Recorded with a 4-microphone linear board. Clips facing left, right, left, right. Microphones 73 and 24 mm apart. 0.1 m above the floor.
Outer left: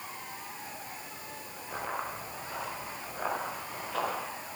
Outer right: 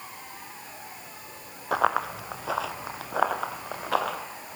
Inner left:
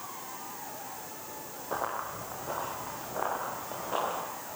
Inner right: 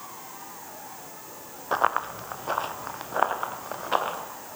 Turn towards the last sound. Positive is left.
turn(degrees=-65)  # may be behind; listen again after turning